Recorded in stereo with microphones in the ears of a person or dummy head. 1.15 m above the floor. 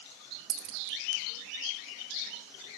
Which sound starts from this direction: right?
A dropped coin, at 0.5 s.